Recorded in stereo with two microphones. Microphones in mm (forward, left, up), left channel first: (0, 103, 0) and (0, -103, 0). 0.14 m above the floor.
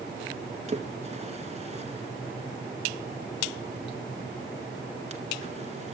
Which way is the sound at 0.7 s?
30° right (ahead or behind).